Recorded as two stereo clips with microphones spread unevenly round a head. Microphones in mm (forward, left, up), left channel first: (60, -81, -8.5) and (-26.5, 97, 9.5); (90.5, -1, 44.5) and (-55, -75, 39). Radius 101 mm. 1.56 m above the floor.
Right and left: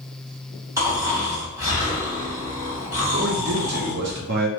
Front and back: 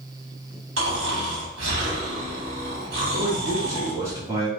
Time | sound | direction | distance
0.8 | snoring | 175° right | 1.3 m
3.1 | a man speaking | 130° left | 0.8 m